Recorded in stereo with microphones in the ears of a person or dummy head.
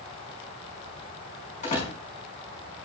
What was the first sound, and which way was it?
A door slam, 35° left (ahead or behind).